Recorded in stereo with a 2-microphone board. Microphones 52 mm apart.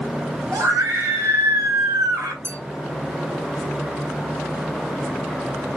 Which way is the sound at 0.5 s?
75° right (ahead or behind).